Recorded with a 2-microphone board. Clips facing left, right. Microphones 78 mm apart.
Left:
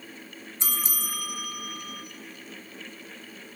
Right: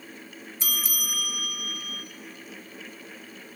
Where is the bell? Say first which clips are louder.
Even; 30° left (ahead or behind), 0.8 m.